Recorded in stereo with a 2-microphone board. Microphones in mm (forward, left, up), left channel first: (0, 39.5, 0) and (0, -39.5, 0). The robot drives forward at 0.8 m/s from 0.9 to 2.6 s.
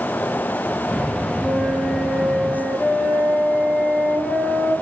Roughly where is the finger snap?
No finger snap in this recording.